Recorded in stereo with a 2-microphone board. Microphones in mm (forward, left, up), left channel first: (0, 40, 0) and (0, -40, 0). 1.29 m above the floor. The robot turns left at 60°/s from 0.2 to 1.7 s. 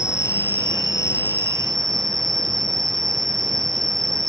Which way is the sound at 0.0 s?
40° left.